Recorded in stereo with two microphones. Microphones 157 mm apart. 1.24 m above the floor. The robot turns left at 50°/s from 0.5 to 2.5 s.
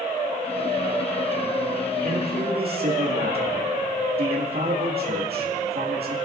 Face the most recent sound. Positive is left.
turn(degrees=-85)